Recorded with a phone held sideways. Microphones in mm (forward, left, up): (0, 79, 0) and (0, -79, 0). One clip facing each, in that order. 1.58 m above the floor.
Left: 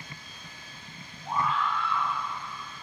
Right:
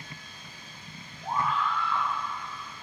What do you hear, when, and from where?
1.2 s a scream: 60° right (ahead or behind), 7 m